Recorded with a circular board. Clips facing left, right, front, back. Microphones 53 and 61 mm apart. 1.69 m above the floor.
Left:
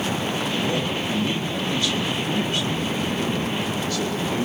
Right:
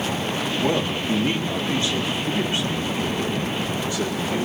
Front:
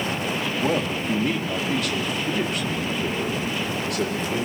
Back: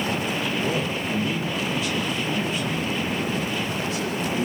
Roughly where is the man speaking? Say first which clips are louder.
Right 2 dB, front 2 dB; ahead right.